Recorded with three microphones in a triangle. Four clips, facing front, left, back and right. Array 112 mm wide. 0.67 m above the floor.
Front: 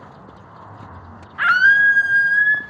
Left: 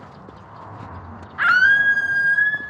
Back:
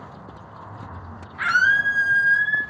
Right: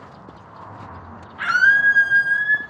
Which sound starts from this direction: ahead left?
A scream, at 1.4 s.